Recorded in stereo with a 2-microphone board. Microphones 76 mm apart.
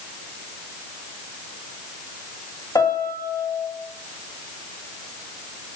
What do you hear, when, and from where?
2.8 s a piano: 60° left (ahead or behind), 1.5 m